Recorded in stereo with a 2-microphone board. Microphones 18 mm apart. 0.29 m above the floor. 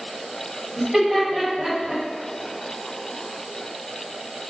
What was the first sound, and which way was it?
Laughter, 30° right (ahead or behind).